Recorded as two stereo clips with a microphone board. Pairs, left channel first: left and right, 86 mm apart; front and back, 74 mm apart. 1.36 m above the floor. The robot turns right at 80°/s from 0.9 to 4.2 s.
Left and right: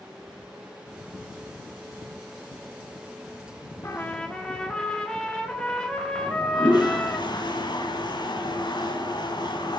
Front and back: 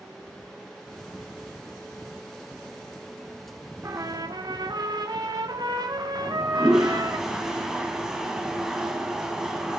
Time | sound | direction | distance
3.8 | a trumpet | 140° left | 1.6 m
6.2 | a toilet flushing | 100° left | 2 m